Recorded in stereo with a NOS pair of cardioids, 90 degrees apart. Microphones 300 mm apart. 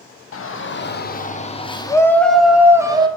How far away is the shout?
About 1.6 m.